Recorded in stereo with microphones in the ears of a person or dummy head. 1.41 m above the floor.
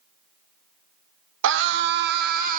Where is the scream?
65° right (ahead or behind), 1.2 m; by 2.6 s 45° right (ahead or behind), 1.4 m.